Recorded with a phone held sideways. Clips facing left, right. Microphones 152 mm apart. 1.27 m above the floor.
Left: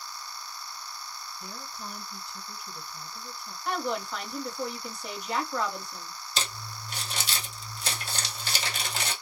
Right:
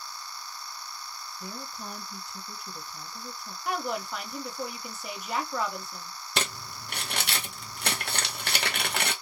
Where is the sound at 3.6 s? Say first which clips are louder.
Left 1 dB; 5° right (ahead or behind), 0.9 m.